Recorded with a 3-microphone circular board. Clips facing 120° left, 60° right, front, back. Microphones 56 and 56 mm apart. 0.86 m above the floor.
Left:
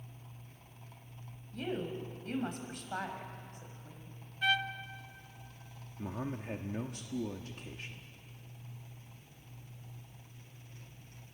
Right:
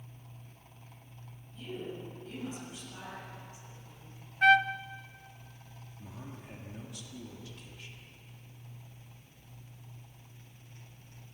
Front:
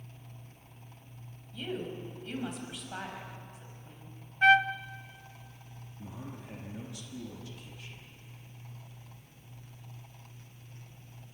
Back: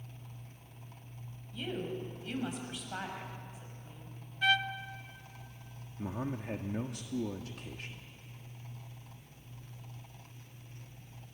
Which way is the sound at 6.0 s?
155° left.